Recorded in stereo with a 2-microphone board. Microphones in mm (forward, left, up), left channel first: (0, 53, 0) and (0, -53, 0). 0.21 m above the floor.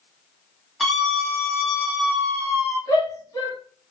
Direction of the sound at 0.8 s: Centre (ahead or behind).